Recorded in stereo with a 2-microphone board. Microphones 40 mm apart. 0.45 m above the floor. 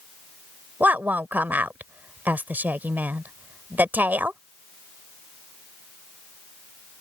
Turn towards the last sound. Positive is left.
turn(degrees=-50)  # may be behind; listen again after turning